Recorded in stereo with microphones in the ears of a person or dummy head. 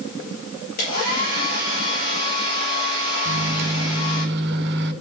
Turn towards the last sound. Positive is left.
turn(degrees=-65)  # may be behind; listen again after turning